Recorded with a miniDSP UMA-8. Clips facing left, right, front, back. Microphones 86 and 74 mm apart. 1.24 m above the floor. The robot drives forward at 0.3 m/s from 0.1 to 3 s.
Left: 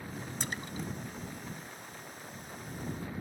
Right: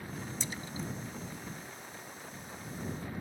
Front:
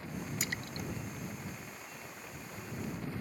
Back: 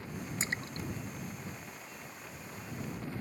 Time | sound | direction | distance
0.4 | a splash | 120° left | ?